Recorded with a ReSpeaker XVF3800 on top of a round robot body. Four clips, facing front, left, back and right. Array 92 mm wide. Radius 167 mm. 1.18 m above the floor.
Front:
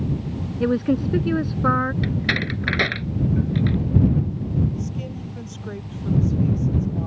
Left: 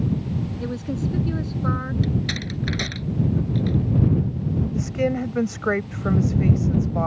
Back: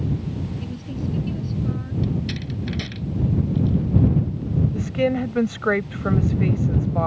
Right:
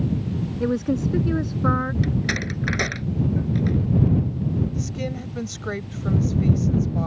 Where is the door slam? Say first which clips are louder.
Right 1 dB, front 4 dB; 25° right.